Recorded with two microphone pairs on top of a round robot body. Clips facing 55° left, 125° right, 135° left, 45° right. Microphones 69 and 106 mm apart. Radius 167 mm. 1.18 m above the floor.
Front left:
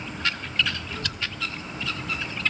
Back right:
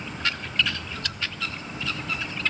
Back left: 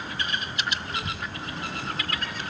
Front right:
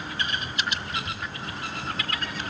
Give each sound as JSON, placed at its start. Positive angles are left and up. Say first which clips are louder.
{"t": 0.9, "sound": "a child speaking", "louder": "front left 1 dB, even", "azimuth_deg": 75, "distance_m": 0.8}